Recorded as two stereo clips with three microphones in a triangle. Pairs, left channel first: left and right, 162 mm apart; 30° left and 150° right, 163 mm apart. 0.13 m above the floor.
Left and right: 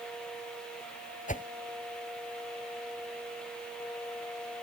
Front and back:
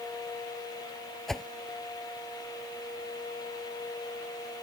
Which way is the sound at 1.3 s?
120° left.